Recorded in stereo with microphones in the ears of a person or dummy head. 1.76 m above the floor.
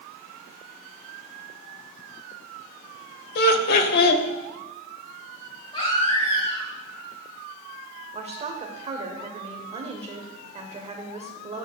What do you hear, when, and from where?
3.4 s laughter: 60° left (ahead or behind), 0.9 m
5.7 s a baby crying: 30° left (ahead or behind), 2.5 m
8.2 s a woman speaking: 30° right (ahead or behind), 1.0 m